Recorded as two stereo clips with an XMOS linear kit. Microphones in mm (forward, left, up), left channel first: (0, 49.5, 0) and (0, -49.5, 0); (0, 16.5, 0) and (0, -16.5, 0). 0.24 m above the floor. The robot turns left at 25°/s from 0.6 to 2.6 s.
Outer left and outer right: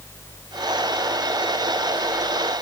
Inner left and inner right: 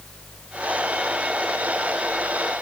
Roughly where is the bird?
I don't hear a bird.